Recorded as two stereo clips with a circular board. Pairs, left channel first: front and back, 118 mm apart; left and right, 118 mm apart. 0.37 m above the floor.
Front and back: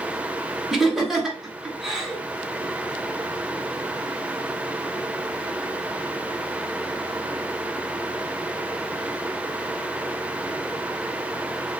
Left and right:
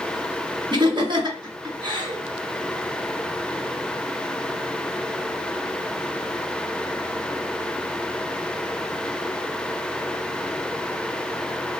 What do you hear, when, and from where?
0.7 s laughter: 95° right, 1.1 m